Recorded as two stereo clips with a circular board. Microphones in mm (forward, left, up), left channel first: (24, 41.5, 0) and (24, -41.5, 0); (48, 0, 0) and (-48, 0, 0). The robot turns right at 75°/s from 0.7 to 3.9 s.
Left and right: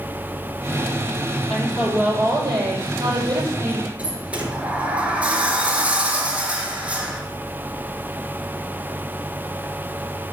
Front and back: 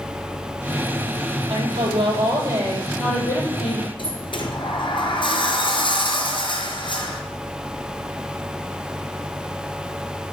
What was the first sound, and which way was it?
A woman speaking, 165° left.